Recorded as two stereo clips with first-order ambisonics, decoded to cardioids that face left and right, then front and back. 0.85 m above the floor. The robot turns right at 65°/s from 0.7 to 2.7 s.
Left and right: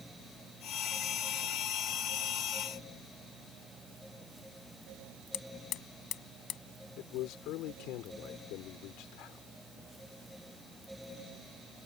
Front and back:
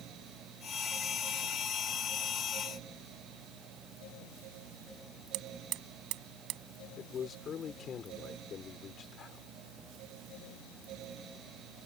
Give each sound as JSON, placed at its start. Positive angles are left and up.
{"t": 5.3, "sound": "hammering", "azimuth_deg": 140}
{"t": 7.0, "sound": "a man speaking", "azimuth_deg": 60}